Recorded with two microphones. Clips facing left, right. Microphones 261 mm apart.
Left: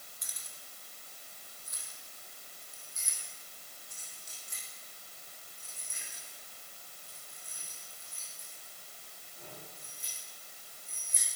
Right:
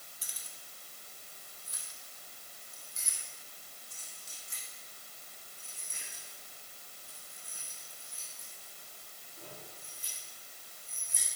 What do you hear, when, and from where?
0.2 s keys jangling: 35° right (ahead or behind), 2 m